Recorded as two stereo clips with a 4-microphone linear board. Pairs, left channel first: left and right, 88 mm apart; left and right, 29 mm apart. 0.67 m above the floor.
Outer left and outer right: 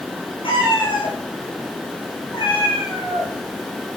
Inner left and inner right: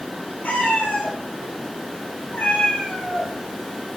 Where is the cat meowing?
80° left, 5 m.